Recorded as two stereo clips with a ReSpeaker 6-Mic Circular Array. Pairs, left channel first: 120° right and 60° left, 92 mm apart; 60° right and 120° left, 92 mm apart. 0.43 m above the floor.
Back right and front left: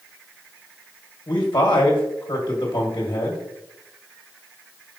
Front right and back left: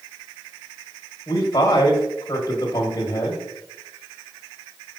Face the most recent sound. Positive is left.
turn(degrees=-100)